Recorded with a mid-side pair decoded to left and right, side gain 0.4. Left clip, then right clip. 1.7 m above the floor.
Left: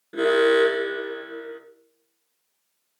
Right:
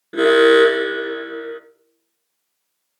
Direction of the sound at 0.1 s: 50° right.